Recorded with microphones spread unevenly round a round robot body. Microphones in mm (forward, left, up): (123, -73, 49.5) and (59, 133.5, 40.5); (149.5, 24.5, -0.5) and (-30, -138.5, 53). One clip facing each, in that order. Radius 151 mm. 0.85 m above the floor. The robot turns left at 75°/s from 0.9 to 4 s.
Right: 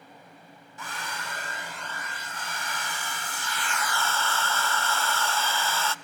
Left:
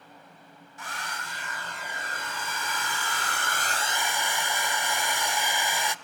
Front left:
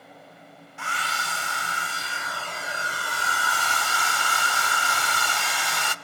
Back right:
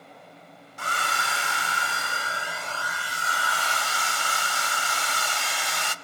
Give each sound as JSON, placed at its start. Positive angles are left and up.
{"t": 0.8, "sound": "a hair dryer", "azimuth_deg": -95, "distance_m": 1.0}